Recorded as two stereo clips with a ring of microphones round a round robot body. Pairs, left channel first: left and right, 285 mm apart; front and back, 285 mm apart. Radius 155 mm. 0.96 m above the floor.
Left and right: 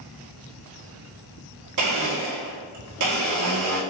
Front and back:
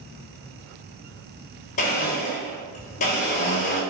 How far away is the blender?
About 3 m.